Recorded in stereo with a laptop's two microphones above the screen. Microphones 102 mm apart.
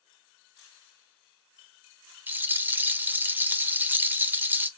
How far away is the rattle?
About 0.7 m.